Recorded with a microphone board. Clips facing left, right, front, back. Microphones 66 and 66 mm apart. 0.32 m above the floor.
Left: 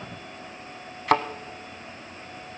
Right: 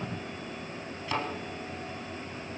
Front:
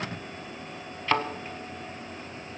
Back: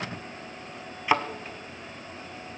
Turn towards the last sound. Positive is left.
turn(degrees=105)